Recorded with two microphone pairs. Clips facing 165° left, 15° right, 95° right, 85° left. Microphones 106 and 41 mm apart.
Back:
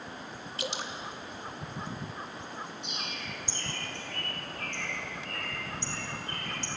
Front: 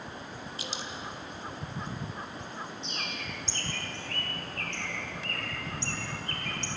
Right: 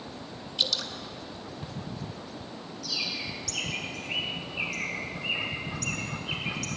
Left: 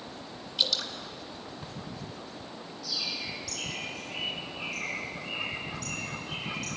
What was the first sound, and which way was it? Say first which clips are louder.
Dripping: back 6 dB, even; 175° left.